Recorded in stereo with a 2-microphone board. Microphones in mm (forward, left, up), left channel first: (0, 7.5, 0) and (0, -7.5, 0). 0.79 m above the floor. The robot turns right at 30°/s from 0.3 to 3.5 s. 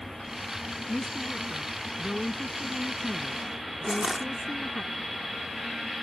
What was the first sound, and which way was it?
A woman speaking, 90° left.